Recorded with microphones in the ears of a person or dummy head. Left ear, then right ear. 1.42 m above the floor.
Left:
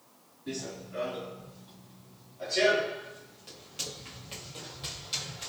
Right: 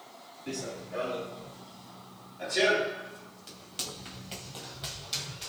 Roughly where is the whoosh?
No whoosh in this recording.